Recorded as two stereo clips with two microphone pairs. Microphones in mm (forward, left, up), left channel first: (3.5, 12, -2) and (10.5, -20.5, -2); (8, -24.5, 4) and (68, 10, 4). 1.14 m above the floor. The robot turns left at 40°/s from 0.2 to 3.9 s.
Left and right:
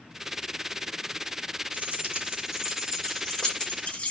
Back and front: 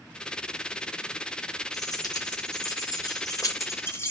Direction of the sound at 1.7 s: 115° right.